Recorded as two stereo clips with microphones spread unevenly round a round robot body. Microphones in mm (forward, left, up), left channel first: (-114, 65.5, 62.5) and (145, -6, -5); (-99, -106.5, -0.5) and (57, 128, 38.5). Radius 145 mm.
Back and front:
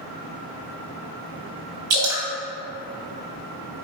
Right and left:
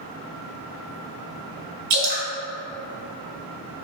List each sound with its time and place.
1.9 s dripping: 20° left, 2 m